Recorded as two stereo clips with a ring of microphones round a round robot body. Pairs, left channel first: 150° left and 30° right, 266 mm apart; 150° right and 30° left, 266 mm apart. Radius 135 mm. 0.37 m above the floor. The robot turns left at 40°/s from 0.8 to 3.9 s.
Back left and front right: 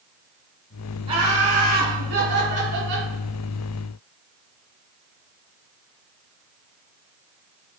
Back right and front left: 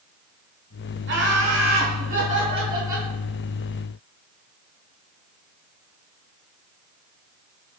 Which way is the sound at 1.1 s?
30° left.